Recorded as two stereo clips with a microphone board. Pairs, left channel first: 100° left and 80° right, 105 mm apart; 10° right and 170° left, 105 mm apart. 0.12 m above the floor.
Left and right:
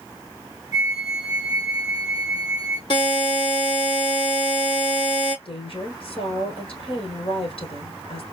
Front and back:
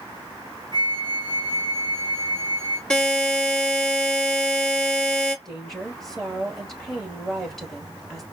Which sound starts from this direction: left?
A woman speaking, at 5.5 s.